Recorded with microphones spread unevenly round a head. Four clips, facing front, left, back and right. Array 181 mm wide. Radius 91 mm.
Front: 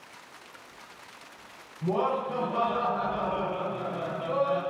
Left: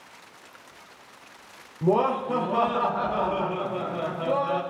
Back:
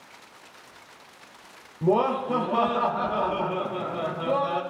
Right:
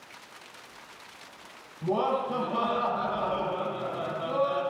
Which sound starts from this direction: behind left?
Laughter, at 1.8 s.